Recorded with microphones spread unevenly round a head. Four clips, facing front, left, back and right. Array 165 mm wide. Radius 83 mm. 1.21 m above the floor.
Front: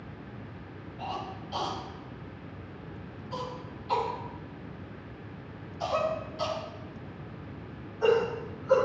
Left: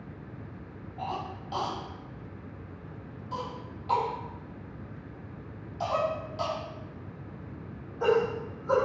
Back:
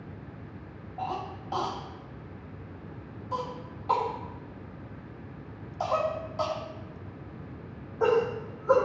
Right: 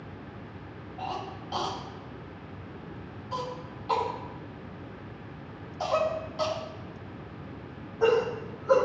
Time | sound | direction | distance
1.0 | a cough | 175° right | 2.5 m